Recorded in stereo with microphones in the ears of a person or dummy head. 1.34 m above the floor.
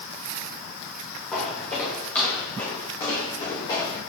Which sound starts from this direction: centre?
Footsteps, at 1.3 s.